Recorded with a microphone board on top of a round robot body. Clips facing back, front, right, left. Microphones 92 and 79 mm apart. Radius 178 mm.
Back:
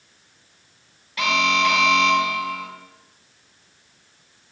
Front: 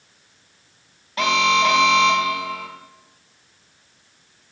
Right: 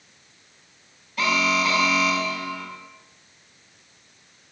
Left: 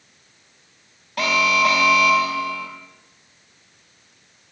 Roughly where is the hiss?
No hiss in this recording.